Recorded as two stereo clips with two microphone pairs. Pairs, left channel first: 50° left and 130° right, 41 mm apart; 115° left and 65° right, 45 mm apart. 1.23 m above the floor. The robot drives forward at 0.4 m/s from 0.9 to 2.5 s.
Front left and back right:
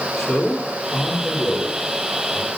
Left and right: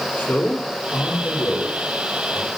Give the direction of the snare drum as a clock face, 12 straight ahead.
No snare drum in this recording.